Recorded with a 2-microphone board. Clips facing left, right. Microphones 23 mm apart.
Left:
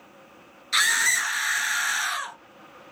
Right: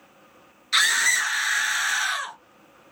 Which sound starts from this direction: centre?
A scream, at 0.7 s.